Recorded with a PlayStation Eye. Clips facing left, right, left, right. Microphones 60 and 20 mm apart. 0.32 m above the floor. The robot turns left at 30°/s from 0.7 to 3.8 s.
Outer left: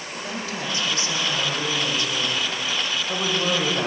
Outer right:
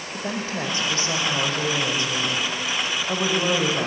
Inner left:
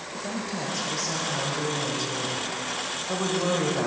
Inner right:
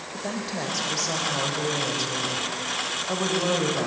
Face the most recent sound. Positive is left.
turn(degrees=180)